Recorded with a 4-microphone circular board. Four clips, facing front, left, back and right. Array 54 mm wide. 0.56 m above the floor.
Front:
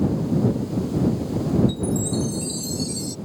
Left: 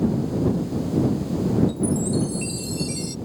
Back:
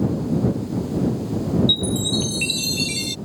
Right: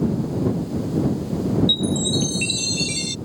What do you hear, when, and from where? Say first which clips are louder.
1.7 s a chime: right 1 dB, back 1 dB; 150° right